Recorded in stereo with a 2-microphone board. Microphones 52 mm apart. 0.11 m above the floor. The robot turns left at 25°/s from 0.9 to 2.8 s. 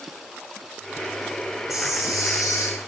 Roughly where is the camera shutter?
Left.